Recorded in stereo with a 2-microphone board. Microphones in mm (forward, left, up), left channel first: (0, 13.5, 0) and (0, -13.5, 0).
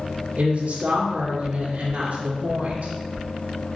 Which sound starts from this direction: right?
A woman speaking, at 0.4 s.